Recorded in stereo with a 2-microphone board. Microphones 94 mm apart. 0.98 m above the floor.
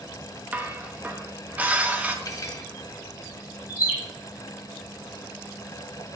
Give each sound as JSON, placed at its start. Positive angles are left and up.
{"t": 0.5, "sound": "dishes clattering", "side_deg": -15, "distance_m": 0.7}
{"t": 2.2, "sound": "cutlery clinking", "side_deg": 40, "distance_m": 1.2}
{"t": 3.7, "sound": "a bird", "side_deg": -20, "distance_m": 3.0}